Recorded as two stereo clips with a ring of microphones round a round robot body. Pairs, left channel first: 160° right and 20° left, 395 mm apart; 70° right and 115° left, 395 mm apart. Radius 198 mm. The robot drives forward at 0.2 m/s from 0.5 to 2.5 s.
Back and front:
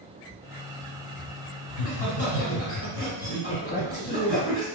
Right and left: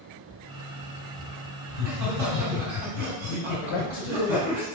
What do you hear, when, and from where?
1.7 s laughter: 140° left, 1.9 m; by 4.6 s 145° left, 2.0 m
3.6 s a man speaking: 85° right, 0.5 m